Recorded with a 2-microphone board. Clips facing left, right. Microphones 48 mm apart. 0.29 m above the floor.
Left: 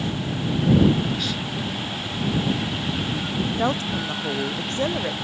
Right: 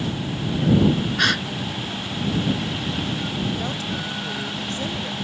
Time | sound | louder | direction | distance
1.2 | a gasp | right 7 dB | 80° right | ?
3.4 | a woman speaking | left 3 dB | 35° left (ahead or behind) | ?